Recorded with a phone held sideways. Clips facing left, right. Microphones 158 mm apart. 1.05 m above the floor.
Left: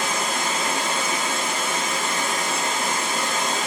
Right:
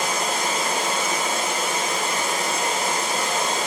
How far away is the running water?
About 2 m.